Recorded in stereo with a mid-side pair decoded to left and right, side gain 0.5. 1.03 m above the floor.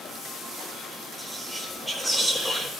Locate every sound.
1.2 s whispering: 10° right, 1.5 m